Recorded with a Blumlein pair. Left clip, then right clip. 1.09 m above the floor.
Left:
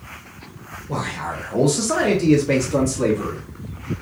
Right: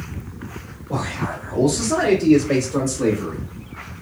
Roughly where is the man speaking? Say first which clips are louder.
Even; ahead.